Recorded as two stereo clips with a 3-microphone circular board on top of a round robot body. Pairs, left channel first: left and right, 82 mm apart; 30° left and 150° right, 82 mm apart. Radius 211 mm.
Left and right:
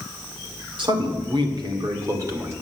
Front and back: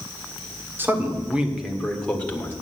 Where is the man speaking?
90° right, 2.5 m; by 2.5 s 35° right, 2.5 m.